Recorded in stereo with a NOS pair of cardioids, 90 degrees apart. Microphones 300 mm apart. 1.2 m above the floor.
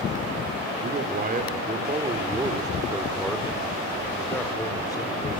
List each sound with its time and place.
0.8 s a man speaking: 35° right, 4 m; by 5.4 s 15° left, 5 m